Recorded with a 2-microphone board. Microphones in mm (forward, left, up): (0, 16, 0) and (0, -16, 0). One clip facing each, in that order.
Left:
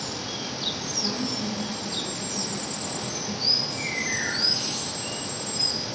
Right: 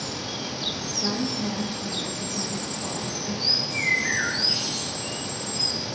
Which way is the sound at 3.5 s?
70° right (ahead or behind).